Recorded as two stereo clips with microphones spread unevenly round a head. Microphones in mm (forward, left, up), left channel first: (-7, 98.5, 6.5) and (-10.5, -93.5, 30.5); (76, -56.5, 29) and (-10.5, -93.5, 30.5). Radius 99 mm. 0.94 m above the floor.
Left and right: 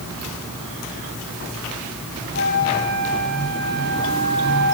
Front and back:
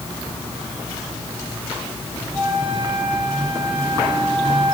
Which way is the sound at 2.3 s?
125° left.